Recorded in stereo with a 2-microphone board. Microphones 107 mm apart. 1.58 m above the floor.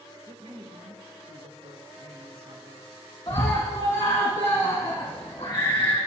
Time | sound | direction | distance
0.3 | a man speaking | 75° right (ahead or behind) | 1.8 m
3.3 | a scream | 45° left (ahead or behind) | 1.7 m